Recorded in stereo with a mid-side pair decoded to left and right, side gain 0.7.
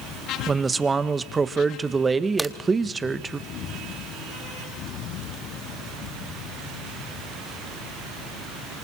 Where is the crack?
5° right, 1.2 m.